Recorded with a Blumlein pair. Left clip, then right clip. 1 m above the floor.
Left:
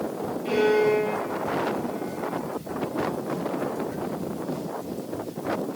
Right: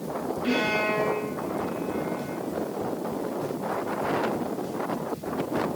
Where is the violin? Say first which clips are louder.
Left 5 dB; 55° right, 5 m.